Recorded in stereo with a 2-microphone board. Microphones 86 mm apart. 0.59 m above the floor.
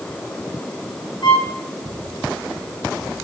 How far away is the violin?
About 3.5 m.